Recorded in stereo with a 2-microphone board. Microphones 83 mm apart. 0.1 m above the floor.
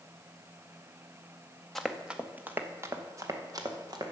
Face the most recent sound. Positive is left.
turn(degrees=-50)  # may be behind; listen again after turning